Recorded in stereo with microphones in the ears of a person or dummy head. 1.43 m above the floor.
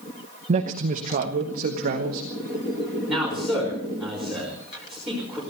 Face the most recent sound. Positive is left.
turn(degrees=-5)  # may be behind; listen again after turning